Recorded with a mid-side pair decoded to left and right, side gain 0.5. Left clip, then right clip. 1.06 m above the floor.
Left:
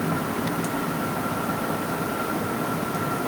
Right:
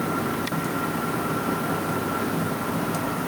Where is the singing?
I don't hear singing.